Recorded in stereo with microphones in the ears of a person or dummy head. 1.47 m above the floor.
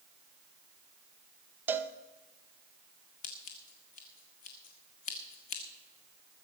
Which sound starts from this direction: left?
Scissors, at 3.2 s.